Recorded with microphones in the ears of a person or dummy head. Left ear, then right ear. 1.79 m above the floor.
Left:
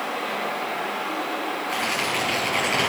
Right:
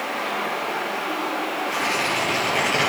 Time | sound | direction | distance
0.0 | running water | 5° right (ahead or behind) | 7.5 m
1.7 | tearing paper | 25° left (ahead or behind) | 6.5 m